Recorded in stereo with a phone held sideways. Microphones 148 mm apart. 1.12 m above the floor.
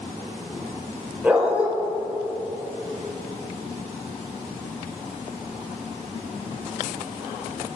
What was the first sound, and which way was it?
A dog barking, 10° right (ahead or behind).